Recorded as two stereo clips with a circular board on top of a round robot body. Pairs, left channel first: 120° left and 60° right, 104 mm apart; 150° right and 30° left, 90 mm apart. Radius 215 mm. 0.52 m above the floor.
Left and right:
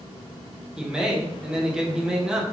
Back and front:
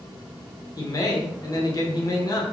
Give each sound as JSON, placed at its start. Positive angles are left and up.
{"t": 0.8, "sound": "a man speaking", "azimuth_deg": -140, "distance_m": 0.9}